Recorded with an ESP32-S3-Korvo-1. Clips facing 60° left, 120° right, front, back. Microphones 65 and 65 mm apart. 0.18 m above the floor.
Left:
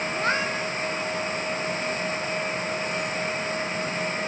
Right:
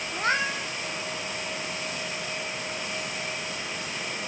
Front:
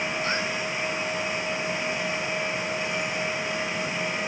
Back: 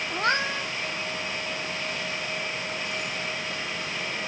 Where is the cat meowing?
150° left, 1.1 m.